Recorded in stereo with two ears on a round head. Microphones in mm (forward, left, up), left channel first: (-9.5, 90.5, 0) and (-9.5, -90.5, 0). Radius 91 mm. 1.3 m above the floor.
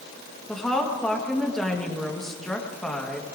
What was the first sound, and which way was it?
A woman speaking, centre (ahead or behind).